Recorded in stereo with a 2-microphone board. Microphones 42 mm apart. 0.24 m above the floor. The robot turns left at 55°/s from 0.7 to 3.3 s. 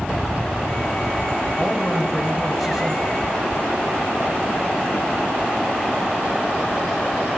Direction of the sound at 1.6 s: 55° left.